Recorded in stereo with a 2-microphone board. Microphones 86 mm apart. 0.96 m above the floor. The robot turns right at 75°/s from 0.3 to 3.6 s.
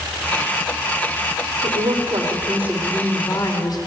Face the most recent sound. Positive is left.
turn(degrees=55)